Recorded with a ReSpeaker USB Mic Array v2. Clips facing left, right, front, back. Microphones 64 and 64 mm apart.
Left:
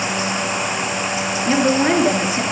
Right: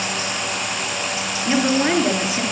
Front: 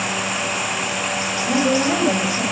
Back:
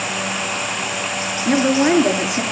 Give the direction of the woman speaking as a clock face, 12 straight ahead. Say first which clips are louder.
Left 2 dB, back 3 dB; 6 o'clock.